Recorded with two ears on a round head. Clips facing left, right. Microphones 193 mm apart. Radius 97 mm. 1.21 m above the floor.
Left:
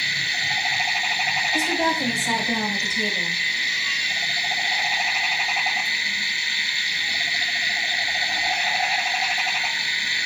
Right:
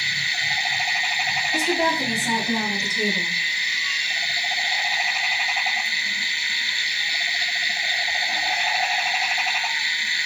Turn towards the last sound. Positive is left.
turn(degrees=-35)  # may be behind; listen again after turning